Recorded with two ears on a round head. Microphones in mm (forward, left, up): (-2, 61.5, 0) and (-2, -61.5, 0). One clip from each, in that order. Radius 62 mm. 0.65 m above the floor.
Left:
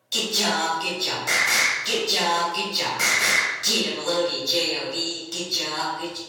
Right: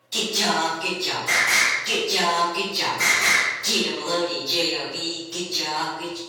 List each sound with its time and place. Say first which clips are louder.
0.1 s singing: right 1 dB; 40° left (ahead or behind), 1.6 m